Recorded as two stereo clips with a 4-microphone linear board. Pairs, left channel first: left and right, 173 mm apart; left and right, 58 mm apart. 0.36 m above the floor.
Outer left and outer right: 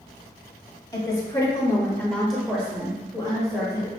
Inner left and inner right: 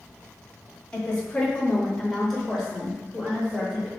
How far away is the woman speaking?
About 1.4 m.